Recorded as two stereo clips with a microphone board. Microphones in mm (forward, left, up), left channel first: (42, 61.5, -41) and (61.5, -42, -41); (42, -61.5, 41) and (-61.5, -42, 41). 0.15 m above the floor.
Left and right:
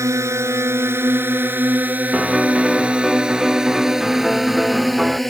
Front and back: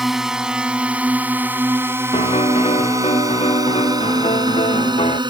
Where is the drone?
105° right; by 5.3 s 170° right.